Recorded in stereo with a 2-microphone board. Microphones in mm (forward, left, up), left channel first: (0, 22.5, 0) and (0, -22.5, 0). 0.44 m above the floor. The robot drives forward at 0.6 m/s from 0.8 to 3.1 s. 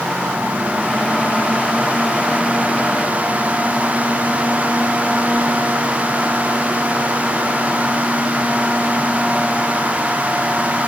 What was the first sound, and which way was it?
Only background noise.